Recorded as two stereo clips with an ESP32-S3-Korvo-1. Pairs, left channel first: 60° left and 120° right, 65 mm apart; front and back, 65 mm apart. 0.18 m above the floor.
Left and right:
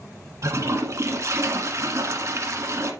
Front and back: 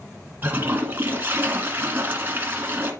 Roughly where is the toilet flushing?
Behind right.